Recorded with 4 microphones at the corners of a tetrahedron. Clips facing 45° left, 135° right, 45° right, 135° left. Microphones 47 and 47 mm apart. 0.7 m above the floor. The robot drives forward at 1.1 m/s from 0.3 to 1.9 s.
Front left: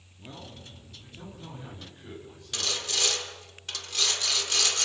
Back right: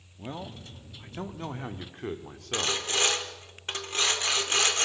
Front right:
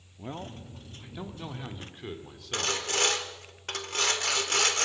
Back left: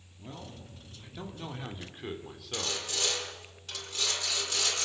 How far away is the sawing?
About 1.8 m.